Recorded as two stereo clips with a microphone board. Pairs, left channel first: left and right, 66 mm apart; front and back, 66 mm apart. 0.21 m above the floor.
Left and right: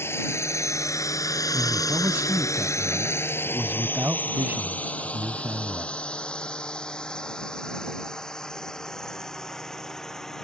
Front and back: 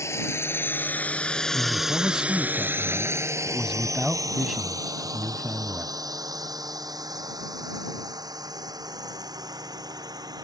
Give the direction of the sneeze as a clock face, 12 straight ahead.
No sneeze in this recording.